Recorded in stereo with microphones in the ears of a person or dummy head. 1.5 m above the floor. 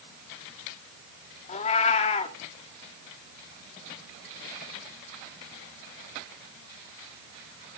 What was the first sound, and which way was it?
A cat meowing, 40° left (ahead or behind).